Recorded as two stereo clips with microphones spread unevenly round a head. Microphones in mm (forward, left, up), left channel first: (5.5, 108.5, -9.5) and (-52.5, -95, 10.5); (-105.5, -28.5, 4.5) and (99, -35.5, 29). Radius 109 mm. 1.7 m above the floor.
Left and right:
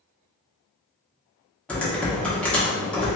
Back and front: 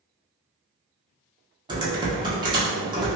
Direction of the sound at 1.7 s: 15° right.